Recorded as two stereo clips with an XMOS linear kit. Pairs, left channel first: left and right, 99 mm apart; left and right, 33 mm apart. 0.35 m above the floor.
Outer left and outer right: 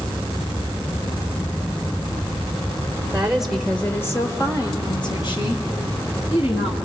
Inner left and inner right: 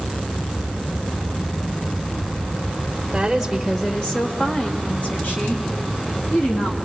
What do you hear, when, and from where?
3.1 s a woman speaking: 15° right (ahead or behind), 1.5 m; by 6.8 s 70° left (ahead or behind), 4 m